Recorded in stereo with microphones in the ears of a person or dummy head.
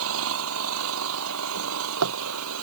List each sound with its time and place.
0.0 s an engine running: 80° right
1.6 s a drawer: 85° right